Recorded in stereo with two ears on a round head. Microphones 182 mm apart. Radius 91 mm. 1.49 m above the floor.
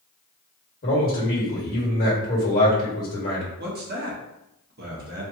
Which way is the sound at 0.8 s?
45° left (ahead or behind).